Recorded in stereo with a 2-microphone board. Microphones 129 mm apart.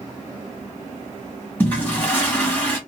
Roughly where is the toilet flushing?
Centre.